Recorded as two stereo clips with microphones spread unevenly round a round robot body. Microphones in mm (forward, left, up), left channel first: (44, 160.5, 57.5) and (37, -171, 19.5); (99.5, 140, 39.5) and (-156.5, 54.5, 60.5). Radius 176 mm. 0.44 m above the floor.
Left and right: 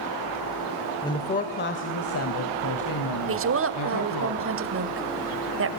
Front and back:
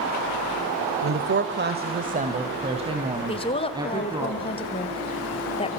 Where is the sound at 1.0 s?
170° left, 1.6 m; by 4.3 s 120° left, 4.5 m.